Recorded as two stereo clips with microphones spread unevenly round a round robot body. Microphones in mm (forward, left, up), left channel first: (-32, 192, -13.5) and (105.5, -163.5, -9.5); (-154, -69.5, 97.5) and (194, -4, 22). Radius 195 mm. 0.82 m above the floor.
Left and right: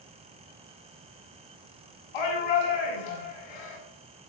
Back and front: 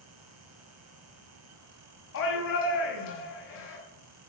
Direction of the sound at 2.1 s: 130° left.